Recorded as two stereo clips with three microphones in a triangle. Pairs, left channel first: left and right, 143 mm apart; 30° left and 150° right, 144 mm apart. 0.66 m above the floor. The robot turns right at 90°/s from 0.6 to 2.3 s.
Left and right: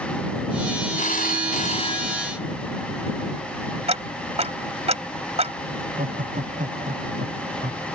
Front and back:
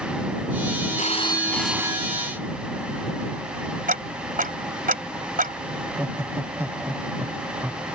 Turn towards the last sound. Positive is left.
turn(degrees=-75)